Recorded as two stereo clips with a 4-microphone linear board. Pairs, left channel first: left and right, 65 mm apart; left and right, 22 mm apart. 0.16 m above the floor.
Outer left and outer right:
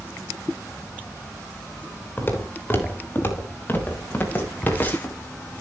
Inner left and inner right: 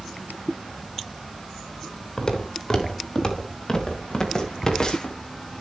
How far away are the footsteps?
About 5 m.